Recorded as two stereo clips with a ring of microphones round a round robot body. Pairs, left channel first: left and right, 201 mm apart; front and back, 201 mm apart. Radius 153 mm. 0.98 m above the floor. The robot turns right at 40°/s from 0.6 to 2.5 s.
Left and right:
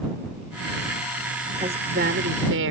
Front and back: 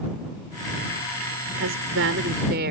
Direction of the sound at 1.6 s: 165° right.